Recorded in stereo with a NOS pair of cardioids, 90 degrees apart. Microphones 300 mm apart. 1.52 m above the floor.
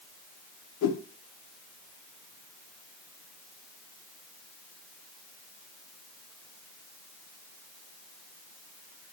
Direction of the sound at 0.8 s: 60° left.